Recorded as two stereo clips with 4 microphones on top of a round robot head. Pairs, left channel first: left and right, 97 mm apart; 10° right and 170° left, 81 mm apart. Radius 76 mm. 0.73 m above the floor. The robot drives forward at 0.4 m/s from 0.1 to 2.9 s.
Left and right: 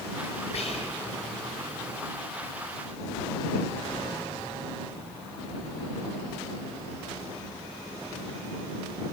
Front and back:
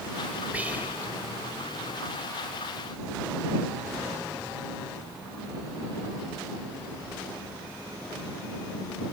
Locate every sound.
0.5 s whispering: 100° left, 3 m; by 1.1 s 105° left, 3 m